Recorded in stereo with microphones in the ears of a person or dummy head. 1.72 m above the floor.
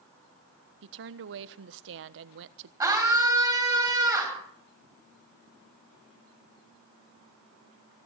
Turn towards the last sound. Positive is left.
turn(degrees=-10)  # may be behind; listen again after turning